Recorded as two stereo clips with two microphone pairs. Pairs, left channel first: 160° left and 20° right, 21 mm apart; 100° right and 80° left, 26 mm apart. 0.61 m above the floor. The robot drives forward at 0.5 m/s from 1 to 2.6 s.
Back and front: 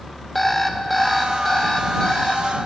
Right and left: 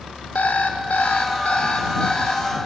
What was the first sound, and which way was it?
An alarm clock, 120° right.